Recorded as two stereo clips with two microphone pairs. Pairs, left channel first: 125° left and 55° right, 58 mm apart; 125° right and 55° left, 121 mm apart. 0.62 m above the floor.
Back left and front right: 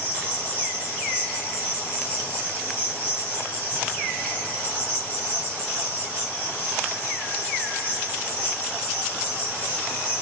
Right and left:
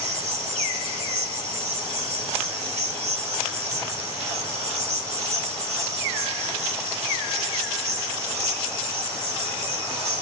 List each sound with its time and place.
0.0 s an insect: 75° left, 4.5 m